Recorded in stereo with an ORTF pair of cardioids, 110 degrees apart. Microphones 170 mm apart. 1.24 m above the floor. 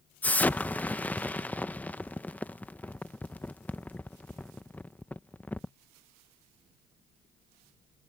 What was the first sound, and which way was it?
An explosion, 10° left.